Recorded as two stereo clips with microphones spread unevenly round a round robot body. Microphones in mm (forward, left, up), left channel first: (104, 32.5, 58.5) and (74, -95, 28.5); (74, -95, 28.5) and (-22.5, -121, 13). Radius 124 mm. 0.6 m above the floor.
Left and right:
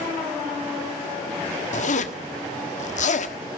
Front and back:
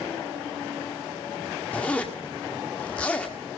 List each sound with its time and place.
1.7 s a zipper: 100° left, 1.5 m